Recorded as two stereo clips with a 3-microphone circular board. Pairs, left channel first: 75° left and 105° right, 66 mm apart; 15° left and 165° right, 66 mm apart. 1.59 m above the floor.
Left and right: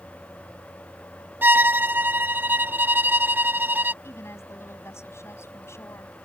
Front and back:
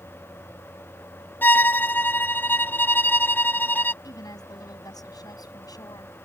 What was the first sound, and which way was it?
A violin, 45° right.